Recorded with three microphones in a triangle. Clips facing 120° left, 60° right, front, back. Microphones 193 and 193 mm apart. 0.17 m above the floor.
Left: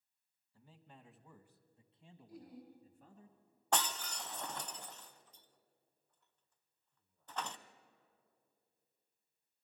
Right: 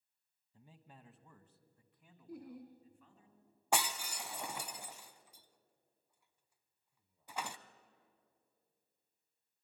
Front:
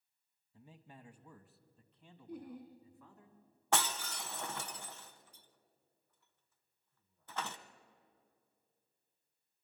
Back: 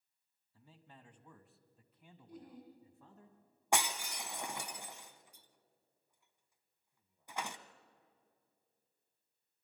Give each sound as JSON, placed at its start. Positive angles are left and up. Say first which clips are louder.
{"t": 0.5, "sound": "a man speaking", "louder": "even, front 4 dB", "azimuth_deg": -25, "distance_m": 1.1}
{"t": 2.3, "sound": "laughter", "louder": "right 5 dB, front 6 dB", "azimuth_deg": -35, "distance_m": 5.5}
{"t": 3.7, "sound": "breaking glass", "louder": "right 1 dB, even", "azimuth_deg": -125, "distance_m": 0.7}